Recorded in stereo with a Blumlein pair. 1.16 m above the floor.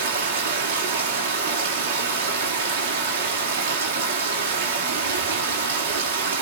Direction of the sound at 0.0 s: 65° right.